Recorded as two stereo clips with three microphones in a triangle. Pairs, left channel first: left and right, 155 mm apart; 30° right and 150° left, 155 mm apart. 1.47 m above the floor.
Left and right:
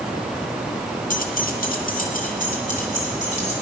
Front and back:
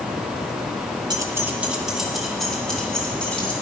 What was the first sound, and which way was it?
Keys jangling, 90° left.